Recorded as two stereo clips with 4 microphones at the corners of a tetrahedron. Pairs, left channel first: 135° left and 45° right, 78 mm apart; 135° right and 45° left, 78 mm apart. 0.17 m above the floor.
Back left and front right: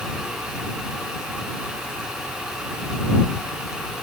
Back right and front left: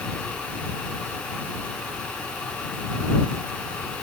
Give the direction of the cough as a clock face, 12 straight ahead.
No cough in this recording.